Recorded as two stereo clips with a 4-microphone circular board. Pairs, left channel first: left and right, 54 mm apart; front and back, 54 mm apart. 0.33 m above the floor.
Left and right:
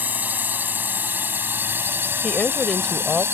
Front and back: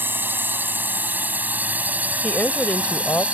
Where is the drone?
140° right; by 3.4 s 120° right.